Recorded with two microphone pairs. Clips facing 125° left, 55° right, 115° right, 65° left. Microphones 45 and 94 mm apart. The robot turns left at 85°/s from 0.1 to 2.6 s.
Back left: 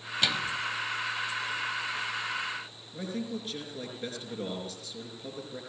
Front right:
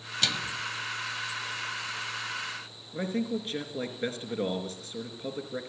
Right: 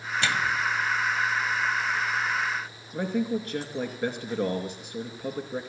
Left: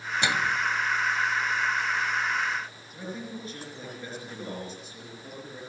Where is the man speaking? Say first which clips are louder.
Front right 5 dB, right 11 dB; 105° right, 4 m.